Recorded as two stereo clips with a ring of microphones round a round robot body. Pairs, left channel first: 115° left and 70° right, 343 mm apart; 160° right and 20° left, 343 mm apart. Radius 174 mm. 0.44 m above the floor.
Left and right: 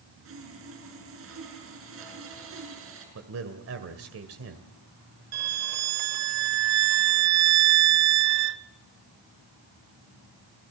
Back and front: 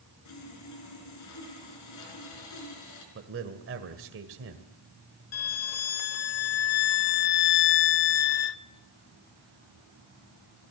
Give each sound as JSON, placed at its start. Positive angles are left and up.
{"t": 0.2, "sound": "sawing", "azimuth_deg": -120, "distance_m": 5.0}
{"t": 3.1, "sound": "a man speaking", "azimuth_deg": -25, "distance_m": 2.0}
{"t": 5.3, "sound": "a violin", "azimuth_deg": -110, "distance_m": 0.7}